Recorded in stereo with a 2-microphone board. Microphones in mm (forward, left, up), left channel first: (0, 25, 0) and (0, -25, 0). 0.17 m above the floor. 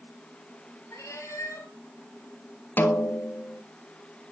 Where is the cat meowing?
80° left, 1.7 m.